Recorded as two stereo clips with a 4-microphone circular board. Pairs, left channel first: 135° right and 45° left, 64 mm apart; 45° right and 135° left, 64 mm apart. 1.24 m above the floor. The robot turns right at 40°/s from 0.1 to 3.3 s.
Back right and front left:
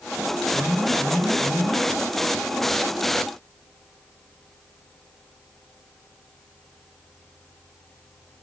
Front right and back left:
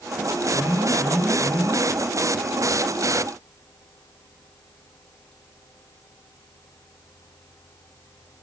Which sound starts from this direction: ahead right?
An alarm, at 0.5 s.